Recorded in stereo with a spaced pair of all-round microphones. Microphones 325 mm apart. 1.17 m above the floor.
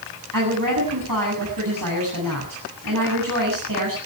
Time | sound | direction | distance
0.3 | a woman speaking | 75° right (ahead or behind) | 8 m